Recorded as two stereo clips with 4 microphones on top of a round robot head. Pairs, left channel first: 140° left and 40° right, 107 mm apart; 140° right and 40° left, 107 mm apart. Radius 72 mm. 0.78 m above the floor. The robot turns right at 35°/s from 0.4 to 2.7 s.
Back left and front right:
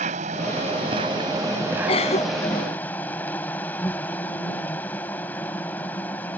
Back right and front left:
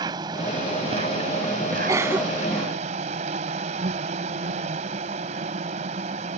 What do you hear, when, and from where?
0.0 s an insect: 15° right; by 6.4 s 65° left
1.9 s a cough: 100° left; by 2.7 s 130° left